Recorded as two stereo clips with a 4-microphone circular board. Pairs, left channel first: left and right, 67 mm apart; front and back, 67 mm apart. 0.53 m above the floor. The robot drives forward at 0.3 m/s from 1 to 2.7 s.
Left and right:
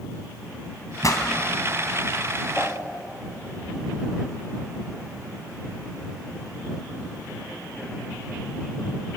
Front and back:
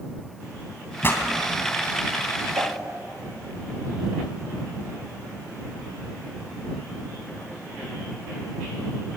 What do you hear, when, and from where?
1.0 s a pop: 55° left, 3 m
2.5 s a whoosh: 165° left, 4.5 m